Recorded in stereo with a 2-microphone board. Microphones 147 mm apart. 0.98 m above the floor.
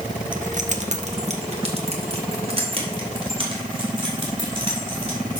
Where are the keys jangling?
65° right (ahead or behind), 0.6 m; by 5.4 s 35° right (ahead or behind), 4 m.